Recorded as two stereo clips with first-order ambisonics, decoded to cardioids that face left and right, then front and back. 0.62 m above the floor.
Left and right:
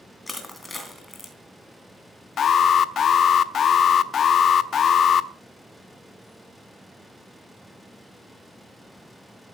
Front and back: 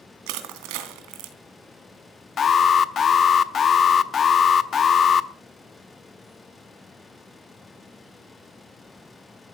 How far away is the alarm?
About 0.7 m.